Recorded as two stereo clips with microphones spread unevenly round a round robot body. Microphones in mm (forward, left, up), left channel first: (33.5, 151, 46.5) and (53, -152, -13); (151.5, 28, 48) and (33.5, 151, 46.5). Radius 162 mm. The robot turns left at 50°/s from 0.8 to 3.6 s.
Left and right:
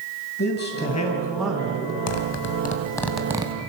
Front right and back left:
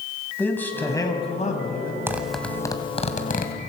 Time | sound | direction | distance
0.4 | a man speaking | 35° left | 3.5 m
2.1 | a zipper | 55° left | 2.5 m